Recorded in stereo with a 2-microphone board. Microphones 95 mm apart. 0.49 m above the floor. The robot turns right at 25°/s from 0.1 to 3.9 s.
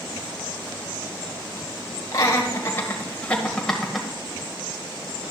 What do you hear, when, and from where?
2.1 s laughter: 40° left (ahead or behind), 1.9 m; by 4.1 s centre (ahead or behind), 1.9 m